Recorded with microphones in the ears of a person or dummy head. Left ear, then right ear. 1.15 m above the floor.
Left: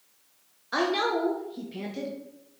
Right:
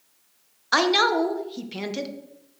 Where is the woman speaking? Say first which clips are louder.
Right 6 dB; 40° right (ahead or behind), 0.7 m.